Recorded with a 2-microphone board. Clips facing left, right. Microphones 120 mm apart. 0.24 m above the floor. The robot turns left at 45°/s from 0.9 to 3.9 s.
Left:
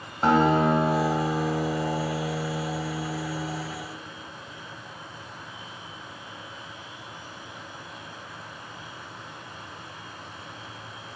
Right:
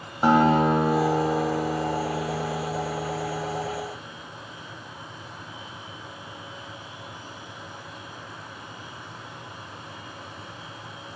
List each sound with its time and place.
0.2 s a guitar: 10° right (ahead or behind), 1.5 m; by 3.6 s 25° left (ahead or behind), 1.5 m